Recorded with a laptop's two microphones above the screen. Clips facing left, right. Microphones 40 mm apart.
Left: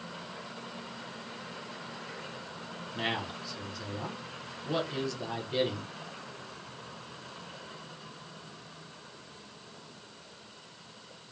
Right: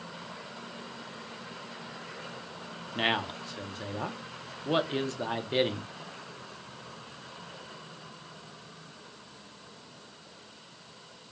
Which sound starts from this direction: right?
A man speaking, at 3.0 s.